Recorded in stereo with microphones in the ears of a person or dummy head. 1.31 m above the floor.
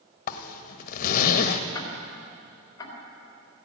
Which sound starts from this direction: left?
A zipper, at 0.3 s.